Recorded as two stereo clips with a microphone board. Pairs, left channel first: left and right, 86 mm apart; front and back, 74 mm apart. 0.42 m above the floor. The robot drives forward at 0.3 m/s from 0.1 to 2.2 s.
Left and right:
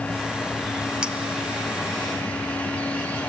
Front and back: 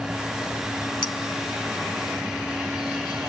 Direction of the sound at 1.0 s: 10° right.